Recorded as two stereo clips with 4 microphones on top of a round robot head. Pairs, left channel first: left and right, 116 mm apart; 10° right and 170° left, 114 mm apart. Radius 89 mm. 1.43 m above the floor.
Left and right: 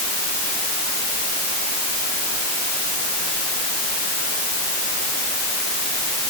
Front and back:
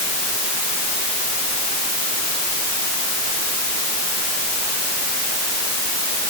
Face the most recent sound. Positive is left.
No sound to turn to.